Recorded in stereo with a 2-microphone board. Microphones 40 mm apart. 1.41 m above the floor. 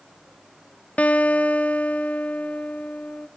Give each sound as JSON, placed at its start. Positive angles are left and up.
{"t": 1.0, "sound": "a guitar", "side_deg": 40, "distance_m": 0.6}